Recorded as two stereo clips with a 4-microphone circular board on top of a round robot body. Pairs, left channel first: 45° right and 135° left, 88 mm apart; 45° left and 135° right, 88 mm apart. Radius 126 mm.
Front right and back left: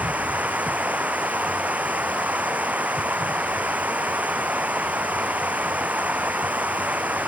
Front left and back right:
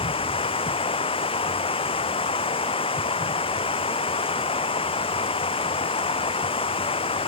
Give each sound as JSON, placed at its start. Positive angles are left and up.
{"t": 0.0, "sound": "running water", "azimuth_deg": 60}